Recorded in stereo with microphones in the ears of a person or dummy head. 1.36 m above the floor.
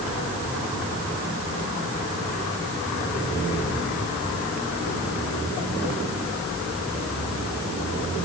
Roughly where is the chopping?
No chopping in this recording.